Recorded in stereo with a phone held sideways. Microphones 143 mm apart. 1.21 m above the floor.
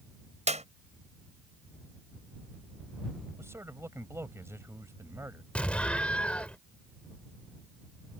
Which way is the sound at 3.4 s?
20° right (ahead or behind).